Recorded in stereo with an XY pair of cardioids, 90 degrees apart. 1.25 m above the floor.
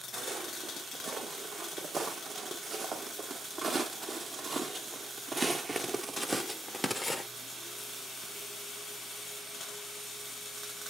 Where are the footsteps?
60° right, 4 m; by 7.2 s 25° left, 1.2 m.